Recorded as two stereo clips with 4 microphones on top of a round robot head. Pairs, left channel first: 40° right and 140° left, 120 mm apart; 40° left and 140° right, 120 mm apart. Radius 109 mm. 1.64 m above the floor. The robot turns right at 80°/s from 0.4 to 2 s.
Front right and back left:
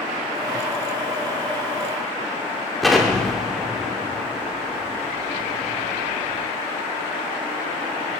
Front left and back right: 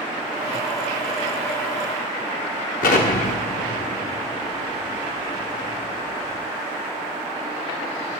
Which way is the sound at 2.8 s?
50° left.